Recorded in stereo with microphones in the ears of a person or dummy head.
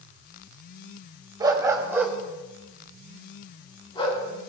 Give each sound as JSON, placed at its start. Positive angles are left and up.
{"t": 1.4, "sound": "a dog barking", "side_deg": -25, "distance_m": 3.0}